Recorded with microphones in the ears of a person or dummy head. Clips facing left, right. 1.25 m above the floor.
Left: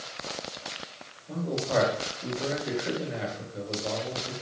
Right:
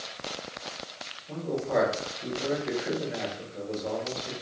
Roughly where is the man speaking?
Centre.